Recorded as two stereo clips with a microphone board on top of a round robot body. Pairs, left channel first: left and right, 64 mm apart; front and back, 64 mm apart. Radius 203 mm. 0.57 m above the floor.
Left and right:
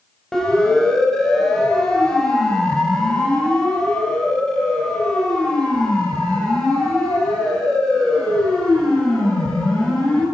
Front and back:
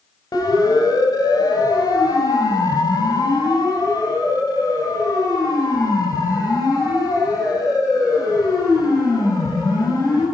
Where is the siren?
10° left, 7 m.